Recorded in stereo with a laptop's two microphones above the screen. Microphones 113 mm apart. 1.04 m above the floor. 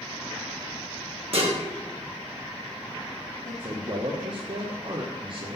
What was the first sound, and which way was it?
Dishes clattering, 55° right (ahead or behind).